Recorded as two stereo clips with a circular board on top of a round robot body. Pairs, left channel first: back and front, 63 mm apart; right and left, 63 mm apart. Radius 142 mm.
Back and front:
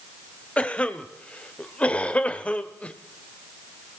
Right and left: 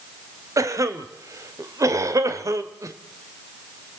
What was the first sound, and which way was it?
A cough, 110° left.